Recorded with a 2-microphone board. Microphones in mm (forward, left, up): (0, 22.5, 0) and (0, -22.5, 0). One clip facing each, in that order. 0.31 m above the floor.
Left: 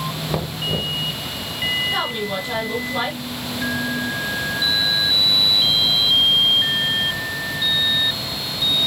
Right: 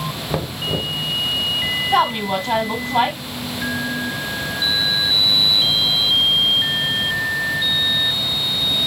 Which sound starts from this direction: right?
A woman speaking, at 1.9 s.